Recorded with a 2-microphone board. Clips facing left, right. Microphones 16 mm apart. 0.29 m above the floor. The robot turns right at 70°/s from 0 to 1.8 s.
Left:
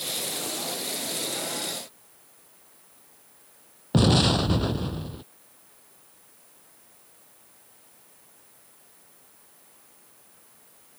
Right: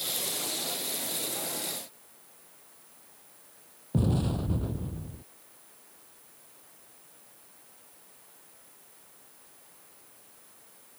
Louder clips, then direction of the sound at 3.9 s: Left 9 dB; 85° left.